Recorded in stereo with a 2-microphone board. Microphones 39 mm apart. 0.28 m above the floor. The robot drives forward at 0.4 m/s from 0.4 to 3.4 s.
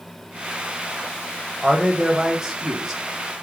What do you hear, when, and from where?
1.6 s a man speaking: 15° right (ahead or behind), 1.2 m; by 3.0 s 10° right (ahead or behind), 1.6 m